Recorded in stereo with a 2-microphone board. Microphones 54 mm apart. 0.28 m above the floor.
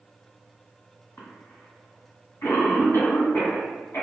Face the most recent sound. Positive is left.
turn(degrees=50)  # may be behind; listen again after turning